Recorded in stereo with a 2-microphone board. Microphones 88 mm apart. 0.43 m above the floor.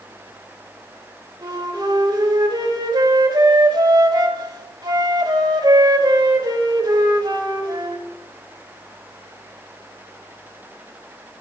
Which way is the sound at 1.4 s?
55° right (ahead or behind).